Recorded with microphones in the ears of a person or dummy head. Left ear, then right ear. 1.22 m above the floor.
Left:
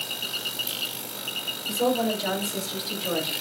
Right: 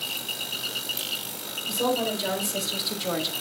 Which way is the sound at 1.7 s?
10° right (ahead or behind).